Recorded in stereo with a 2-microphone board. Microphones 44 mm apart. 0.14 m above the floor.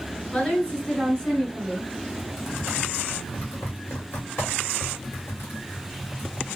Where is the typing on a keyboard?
60° left (ahead or behind), 2 m.